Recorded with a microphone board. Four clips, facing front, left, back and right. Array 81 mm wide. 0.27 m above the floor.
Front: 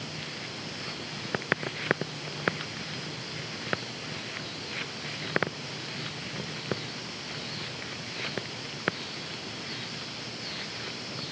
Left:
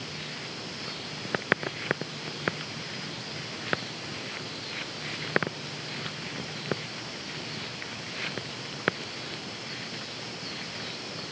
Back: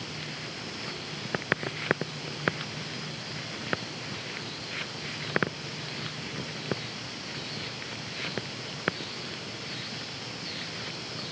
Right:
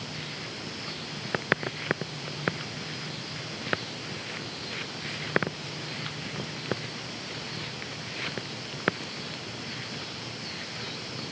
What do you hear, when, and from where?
Only background noise.